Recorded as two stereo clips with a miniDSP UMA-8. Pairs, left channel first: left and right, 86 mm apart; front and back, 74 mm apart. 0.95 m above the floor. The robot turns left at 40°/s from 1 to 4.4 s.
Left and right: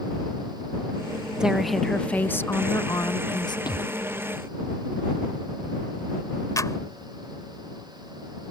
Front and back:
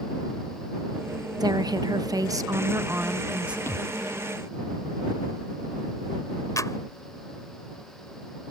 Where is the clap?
40° left.